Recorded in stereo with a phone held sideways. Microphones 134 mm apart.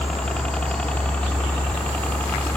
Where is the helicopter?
5° left (ahead or behind); by 2.6 s 10° left (ahead or behind).